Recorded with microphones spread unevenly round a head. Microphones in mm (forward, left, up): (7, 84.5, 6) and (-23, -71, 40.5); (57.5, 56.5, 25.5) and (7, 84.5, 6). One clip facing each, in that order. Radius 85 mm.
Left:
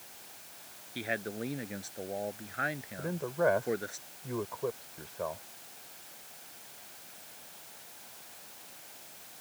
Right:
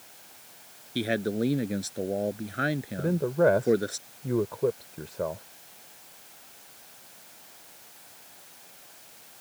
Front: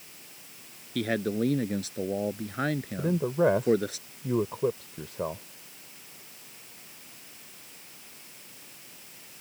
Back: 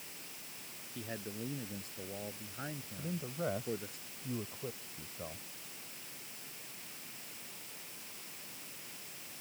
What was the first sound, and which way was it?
A man speaking, 55° right.